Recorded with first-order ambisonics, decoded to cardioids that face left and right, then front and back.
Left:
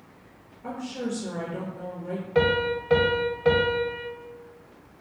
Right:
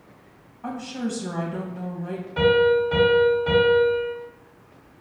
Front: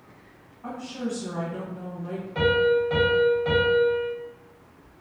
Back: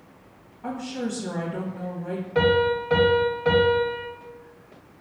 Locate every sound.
0.6 s a woman speaking: 100° right, 1.1 m
2.4 s a piano: 105° left, 0.9 m